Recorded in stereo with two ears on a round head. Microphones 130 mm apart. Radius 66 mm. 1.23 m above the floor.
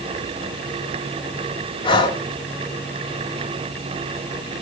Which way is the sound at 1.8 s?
35° left (ahead or behind).